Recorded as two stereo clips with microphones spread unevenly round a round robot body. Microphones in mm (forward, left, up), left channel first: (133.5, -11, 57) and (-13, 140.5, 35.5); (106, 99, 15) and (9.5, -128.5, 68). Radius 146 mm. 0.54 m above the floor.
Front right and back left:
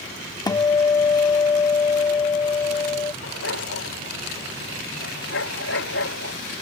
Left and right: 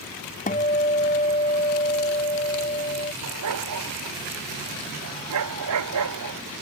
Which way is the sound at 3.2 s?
95° right.